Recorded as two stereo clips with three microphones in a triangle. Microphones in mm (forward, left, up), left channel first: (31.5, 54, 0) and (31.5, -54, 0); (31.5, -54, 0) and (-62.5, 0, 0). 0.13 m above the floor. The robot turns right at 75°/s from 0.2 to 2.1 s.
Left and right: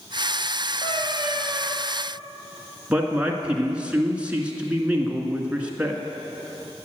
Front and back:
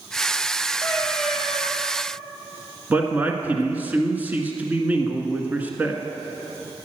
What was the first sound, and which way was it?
A cat meowing, 30° left.